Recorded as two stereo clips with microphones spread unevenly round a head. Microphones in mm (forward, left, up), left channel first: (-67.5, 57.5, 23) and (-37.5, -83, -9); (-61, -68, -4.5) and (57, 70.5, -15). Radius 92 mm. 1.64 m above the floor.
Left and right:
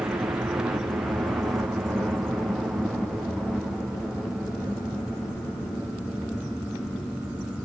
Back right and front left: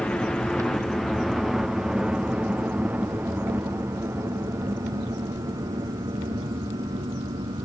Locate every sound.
0.0 s a helicopter: 55° right; by 7.7 s 20° left